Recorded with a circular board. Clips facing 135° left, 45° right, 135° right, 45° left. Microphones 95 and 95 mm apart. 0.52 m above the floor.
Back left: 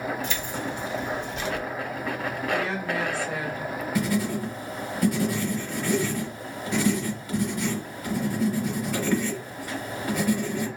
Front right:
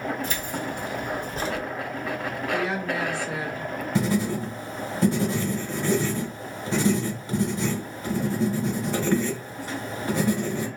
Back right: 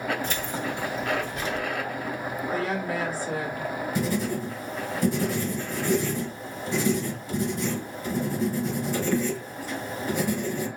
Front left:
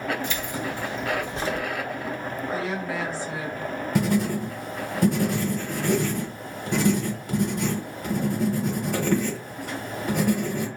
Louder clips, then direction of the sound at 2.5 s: Front right 2 dB, back right 1 dB; 110° right.